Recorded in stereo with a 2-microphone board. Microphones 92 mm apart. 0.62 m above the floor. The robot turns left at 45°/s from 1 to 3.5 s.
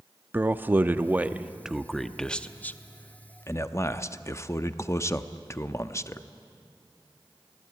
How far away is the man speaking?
About 0.6 m.